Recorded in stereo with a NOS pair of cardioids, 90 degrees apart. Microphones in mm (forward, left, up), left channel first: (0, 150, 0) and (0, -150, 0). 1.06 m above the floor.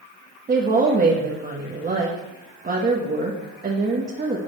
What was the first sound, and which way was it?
A woman speaking, 30° right.